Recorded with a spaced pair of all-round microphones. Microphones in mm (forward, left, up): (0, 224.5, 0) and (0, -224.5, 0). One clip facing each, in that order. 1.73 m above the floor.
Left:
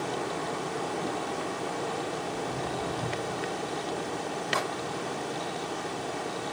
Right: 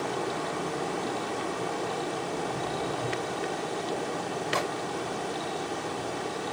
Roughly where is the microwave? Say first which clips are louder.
Right 2 dB; right.